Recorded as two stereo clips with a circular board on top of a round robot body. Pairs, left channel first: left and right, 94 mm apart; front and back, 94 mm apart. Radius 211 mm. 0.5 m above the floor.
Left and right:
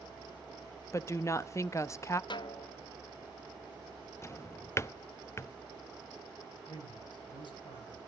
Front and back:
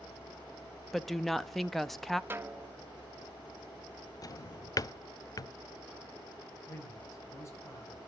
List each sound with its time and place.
0.9 s a woman speaking: 85° left, 1.0 m
2.3 s a snare drum: 115° left, 0.9 m
4.2 s a drawer: 35° left, 0.6 m
6.7 s a man speaking: 60° left, 7 m